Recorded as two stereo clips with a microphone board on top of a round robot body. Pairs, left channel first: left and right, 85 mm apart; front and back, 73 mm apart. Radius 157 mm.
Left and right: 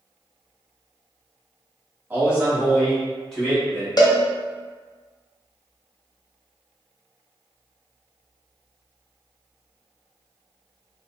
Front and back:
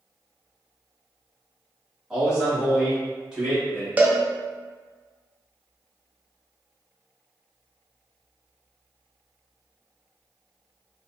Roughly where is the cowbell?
Behind left.